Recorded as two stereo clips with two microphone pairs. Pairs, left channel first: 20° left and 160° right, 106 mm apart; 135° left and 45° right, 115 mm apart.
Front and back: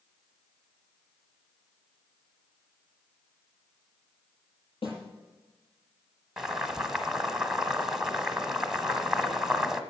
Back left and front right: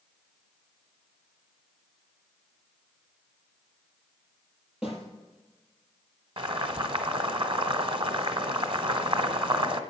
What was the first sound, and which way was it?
A snare drum, 40° left.